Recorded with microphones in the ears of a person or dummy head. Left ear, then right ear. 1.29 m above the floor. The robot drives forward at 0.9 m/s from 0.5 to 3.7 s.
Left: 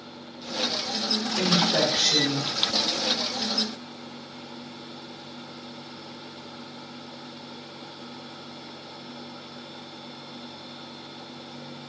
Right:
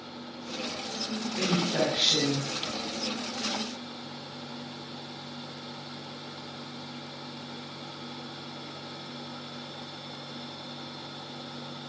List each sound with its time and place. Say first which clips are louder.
1.4 s a woman speaking: left 4 dB; 45° left (ahead or behind), 5.5 m; by 2.5 s 40° left (ahead or behind), 6.5 m